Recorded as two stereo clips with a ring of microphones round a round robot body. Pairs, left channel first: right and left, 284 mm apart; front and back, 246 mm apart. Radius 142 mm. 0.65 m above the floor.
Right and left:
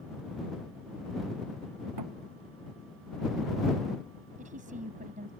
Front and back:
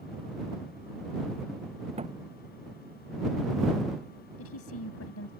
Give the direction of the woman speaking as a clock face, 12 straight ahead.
11 o'clock.